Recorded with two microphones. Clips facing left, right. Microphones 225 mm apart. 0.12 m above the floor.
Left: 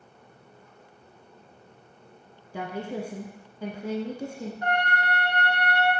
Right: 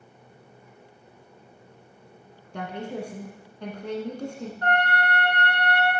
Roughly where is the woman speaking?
Centre.